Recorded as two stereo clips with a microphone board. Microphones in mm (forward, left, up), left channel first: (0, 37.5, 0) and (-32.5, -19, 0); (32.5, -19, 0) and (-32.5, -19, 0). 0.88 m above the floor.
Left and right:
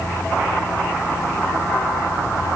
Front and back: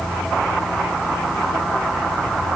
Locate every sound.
Only background noise.